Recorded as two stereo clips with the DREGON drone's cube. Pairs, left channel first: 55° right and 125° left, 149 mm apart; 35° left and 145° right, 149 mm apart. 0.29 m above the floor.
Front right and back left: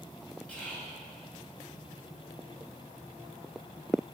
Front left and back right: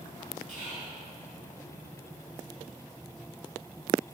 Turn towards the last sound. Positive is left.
turn(degrees=-135)